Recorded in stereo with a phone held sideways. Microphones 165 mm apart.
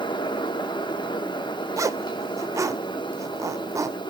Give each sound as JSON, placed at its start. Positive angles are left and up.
{"t": 0.0, "sound": "a fan", "side_deg": 30, "distance_m": 0.8}
{"t": 1.8, "sound": "a zipper", "side_deg": -20, "distance_m": 0.6}